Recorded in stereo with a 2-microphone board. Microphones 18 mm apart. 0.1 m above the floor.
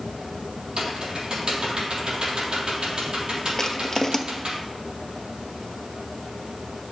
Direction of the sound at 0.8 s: 55° right (ahead or behind).